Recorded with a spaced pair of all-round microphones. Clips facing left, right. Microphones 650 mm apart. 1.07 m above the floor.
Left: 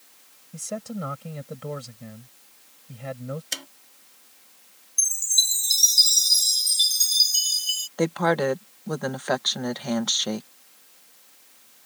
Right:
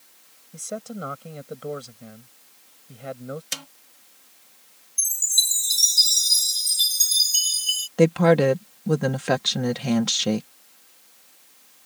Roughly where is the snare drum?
Right.